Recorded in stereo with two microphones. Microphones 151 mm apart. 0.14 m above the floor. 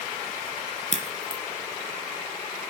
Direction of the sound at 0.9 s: 45° right (ahead or behind).